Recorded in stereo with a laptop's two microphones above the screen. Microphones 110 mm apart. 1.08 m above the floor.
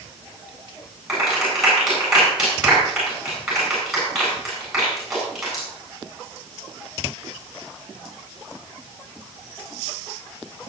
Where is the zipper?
I don't hear a zipper.